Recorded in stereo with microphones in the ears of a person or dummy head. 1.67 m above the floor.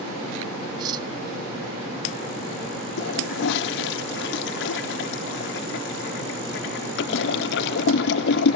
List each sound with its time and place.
0.8 s cutlery clinking: 15° right (ahead or behind)
3.0 s a toilet flushing: 65° left (ahead or behind)